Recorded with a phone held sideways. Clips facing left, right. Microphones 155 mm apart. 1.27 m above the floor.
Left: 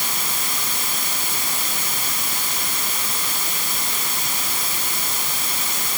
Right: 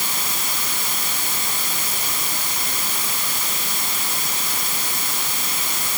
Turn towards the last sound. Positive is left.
No sound to turn to.